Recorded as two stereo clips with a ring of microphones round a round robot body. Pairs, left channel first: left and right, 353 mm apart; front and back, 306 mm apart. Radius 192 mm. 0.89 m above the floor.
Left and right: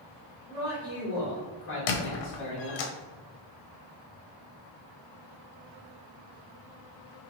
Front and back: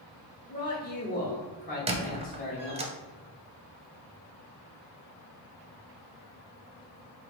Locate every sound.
0.5 s a man speaking: 50° left, 1.1 m
1.9 s a squeak: 105° left, 0.6 m